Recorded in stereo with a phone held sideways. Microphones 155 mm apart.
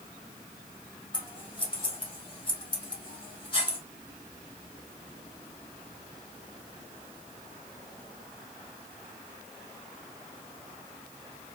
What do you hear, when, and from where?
1.1 s scissors: 30° left (ahead or behind), 1.2 m